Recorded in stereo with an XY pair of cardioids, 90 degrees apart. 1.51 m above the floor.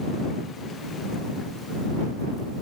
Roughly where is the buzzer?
I don't hear a buzzer.